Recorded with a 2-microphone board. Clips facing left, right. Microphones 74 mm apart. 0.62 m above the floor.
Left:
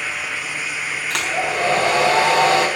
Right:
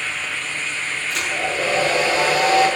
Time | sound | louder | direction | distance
1.1 | a hair dryer | left 3 dB | 80° left | 4 m